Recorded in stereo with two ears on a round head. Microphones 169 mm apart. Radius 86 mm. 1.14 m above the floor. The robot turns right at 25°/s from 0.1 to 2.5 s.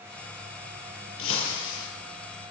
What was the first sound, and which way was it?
Breaking glass, 85° left.